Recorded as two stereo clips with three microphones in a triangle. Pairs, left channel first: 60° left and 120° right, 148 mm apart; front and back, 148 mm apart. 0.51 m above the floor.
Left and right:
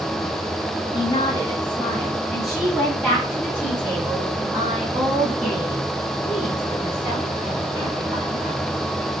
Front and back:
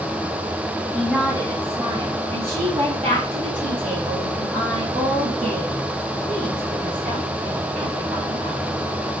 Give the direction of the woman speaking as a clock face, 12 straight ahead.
9 o'clock.